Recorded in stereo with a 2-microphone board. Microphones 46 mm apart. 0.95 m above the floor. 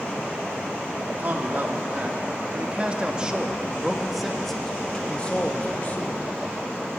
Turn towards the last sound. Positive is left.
turn(degrees=45)  # may be behind; listen again after turning